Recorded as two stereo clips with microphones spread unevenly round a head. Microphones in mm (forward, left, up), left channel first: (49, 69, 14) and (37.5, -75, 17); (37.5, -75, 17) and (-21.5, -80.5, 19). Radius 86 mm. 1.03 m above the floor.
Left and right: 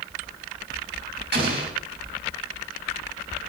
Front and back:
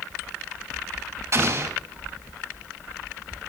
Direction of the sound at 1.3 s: 135° right.